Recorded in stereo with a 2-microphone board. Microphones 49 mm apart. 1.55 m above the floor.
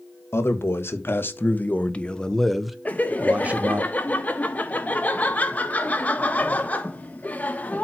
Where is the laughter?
35° left (ahead or behind), 1.4 m.